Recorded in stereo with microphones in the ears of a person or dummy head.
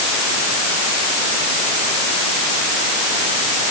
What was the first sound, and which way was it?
Only background noise.